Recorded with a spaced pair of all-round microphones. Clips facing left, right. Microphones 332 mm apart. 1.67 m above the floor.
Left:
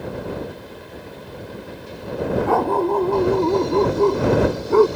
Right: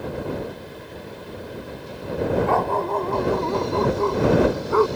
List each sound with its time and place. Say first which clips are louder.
2.5 s a dog barking: left 4 dB; 50° left (ahead or behind); by 4.9 s 40° left (ahead or behind)